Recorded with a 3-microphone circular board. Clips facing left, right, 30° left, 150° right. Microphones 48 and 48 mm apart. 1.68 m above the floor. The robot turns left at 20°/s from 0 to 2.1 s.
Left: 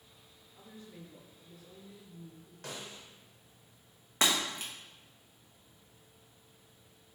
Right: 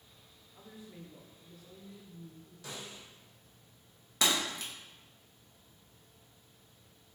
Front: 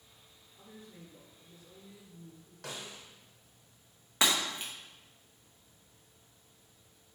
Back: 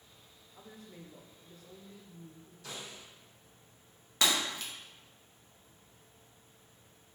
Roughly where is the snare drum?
Ahead left.